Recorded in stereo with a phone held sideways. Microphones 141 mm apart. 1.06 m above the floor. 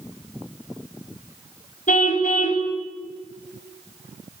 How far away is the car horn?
About 3.5 m.